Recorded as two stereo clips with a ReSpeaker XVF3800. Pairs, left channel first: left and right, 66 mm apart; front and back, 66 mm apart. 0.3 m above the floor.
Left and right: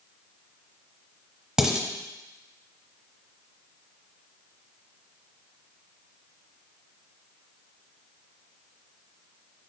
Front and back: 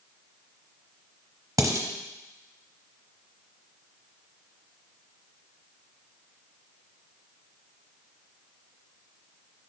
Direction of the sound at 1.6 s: 170° right.